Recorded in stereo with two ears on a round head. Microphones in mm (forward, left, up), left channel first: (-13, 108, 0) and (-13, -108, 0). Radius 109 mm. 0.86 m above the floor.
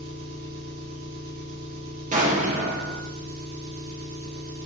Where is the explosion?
35° right (ahead or behind), 0.8 m.